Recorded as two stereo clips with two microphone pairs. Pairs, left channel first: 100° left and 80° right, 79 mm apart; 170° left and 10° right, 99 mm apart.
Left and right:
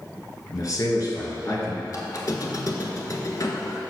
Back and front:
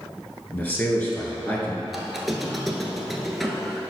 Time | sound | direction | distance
0.5 | a man speaking | 105° left | 1.5 m
1.9 | a squeak | 80° left | 0.8 m